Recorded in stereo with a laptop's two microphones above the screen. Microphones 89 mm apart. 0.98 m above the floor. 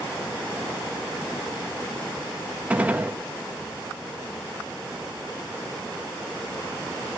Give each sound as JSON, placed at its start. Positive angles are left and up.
{"t": 2.7, "sound": "a gunshot", "side_deg": -15, "distance_m": 1.3}